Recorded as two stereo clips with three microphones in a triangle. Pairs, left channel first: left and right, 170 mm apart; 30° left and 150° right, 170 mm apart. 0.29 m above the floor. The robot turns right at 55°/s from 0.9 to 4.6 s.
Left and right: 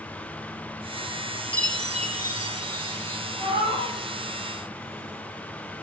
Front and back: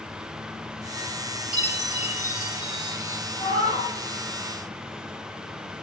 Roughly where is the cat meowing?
Right.